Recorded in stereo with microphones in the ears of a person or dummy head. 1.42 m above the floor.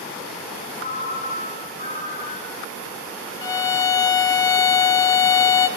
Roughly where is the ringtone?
Left.